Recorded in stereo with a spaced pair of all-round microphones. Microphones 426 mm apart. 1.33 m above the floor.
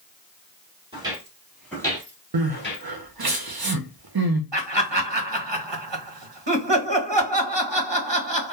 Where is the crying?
60° right (ahead or behind), 0.6 m.